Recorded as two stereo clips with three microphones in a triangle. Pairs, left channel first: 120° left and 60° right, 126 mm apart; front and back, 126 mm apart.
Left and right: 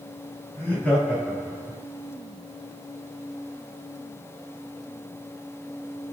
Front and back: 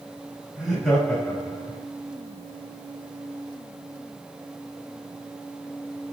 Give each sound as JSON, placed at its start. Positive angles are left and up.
{"t": 0.6, "sound": "laughter", "azimuth_deg": 105, "distance_m": 1.0}